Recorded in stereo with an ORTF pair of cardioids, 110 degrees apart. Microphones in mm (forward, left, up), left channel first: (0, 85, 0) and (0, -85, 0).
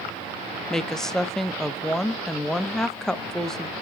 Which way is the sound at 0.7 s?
5° left.